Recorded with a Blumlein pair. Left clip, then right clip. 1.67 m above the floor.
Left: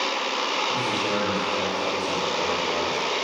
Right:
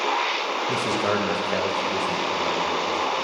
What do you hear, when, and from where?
0.7 s a man speaking: 40° right, 2 m; by 3.0 s straight ahead, 2.0 m